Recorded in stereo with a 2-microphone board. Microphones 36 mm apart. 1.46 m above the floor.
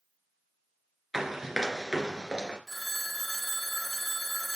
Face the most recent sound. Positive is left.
turn(degrees=0)  # may be behind; listen again after turning